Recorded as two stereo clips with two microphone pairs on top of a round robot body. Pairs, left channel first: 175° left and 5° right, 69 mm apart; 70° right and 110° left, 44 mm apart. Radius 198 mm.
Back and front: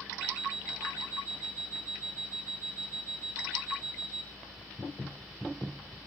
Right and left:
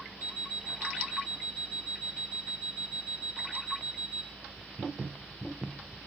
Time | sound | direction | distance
0.2 | an alarm clock | 75° right | 4 m